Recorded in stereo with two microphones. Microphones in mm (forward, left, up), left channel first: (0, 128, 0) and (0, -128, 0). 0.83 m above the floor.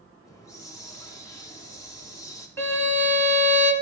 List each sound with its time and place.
0.3 s a hiss: 10° left (ahead or behind), 0.8 m
2.6 s a violin: 10° left (ahead or behind), 0.8 m